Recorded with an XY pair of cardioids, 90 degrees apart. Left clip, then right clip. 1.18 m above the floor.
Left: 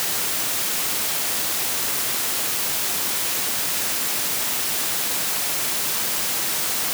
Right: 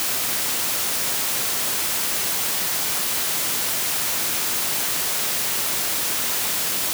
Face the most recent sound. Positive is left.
No sound to turn to.